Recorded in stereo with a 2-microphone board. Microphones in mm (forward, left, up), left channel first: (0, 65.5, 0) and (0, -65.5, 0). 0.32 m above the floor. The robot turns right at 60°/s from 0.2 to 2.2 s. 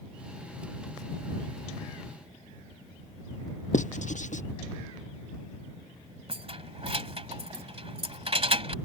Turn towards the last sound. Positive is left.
turn(degrees=-50)  # may be behind; listen again after turning